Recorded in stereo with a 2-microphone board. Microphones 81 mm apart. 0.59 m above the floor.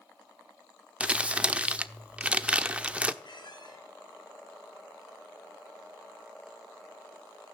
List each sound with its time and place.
1.0 s crumpling: 15° right (ahead or behind), 0.8 m
3.2 s a squeak: 65° left (ahead or behind), 5.5 m